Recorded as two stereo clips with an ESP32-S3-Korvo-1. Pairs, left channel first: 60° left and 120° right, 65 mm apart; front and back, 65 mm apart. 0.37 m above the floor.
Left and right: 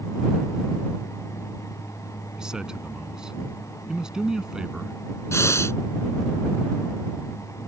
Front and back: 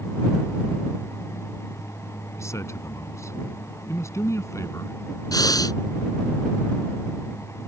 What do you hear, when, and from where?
2.4 s a man speaking: 40° right
5.3 s breathing: 20° left